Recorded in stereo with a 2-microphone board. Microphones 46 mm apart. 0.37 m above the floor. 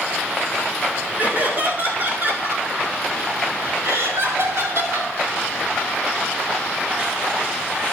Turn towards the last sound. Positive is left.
turn(degrees=-75)  # may be behind; listen again after turning